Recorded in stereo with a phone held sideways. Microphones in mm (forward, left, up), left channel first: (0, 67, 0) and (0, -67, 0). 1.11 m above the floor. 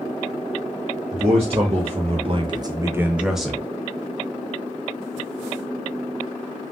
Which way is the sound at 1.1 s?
45° right (ahead or behind).